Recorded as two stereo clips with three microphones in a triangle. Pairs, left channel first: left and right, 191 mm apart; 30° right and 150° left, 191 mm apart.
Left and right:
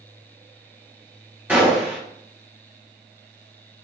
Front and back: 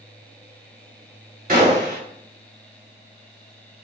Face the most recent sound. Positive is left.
turn(degrees=-170)